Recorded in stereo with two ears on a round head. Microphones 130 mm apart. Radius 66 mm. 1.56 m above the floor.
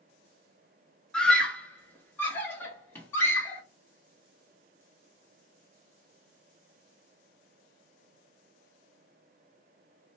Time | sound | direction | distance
1.1 | a scream | 5° left (ahead or behind) | 0.7 m